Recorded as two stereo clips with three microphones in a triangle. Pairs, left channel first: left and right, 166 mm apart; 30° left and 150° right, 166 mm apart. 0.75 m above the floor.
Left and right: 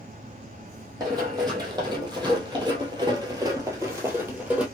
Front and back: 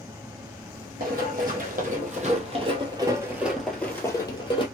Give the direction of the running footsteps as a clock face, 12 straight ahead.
5 o'clock.